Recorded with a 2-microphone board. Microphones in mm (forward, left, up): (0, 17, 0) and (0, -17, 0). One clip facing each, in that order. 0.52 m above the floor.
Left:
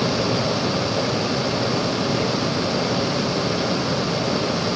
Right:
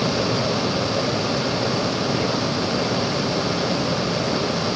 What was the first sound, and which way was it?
Only background noise.